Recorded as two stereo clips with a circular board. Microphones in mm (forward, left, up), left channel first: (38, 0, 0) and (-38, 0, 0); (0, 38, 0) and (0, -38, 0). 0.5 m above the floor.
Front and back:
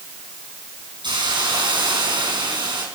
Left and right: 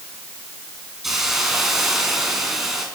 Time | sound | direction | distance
1.0 | a hiss | 175° right | 5 m